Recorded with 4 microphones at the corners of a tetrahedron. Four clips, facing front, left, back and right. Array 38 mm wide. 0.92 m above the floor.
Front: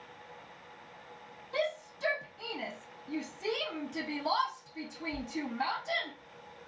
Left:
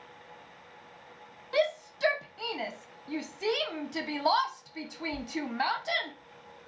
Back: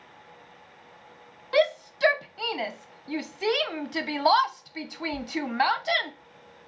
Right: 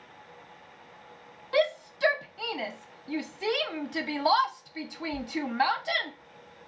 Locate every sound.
1.5 s a shout: 175° right, 0.7 m